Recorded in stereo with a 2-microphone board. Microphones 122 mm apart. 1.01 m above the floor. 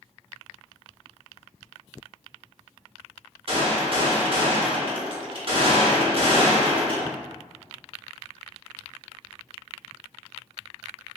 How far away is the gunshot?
About 1.0 m.